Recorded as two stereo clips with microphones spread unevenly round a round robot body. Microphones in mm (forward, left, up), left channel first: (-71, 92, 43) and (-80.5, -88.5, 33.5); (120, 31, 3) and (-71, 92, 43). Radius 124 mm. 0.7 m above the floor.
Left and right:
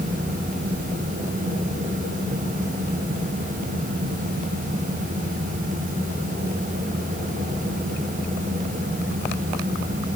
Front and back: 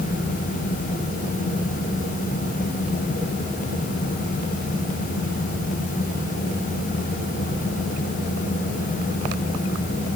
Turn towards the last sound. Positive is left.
No sound to turn to.